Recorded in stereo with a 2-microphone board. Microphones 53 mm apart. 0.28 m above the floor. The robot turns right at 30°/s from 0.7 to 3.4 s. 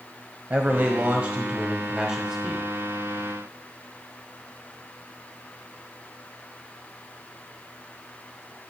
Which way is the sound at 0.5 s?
65° right.